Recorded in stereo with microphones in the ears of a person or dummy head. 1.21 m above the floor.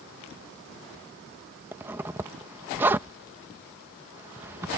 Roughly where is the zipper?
Centre.